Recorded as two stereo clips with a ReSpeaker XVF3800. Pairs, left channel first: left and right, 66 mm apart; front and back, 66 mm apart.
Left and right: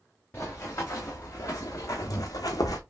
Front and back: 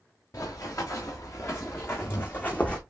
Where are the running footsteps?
40° left, 2.0 m; by 2.8 s 70° left, 1.0 m.